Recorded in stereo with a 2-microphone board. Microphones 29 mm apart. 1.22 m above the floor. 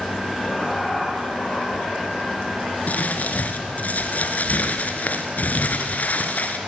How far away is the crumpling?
About 2.5 m.